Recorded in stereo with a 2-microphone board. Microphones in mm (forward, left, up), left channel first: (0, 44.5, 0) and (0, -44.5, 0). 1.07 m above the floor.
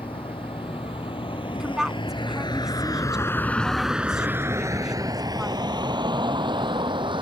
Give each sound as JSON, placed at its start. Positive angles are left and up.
{"t": 0.0, "sound": "a vehicle", "side_deg": 85}
{"t": 1.5, "sound": "a woman speaking", "side_deg": -5}